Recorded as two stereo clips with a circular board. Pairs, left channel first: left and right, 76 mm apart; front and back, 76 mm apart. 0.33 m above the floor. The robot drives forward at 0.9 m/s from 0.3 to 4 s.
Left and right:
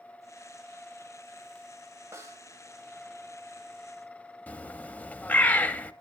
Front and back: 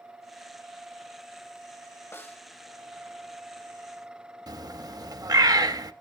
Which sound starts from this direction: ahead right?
A snare drum, at 2.1 s.